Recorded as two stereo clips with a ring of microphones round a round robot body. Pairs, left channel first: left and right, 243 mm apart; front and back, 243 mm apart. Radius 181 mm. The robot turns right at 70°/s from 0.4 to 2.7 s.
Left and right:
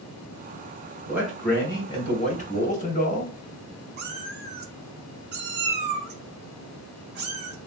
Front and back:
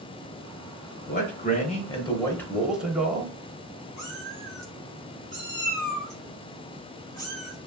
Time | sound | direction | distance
1.1 | a man speaking | 20° right | 1.0 m
4.0 | a cat meowing | 70° right | 0.6 m